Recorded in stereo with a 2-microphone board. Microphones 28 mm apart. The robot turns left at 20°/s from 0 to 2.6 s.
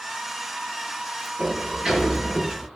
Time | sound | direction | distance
1.4 | a sliding door | 25° right (ahead or behind) | 5 m